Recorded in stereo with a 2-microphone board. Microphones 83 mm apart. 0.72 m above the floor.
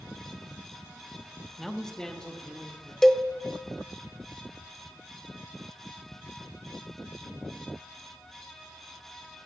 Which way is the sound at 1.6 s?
5° left (ahead or behind).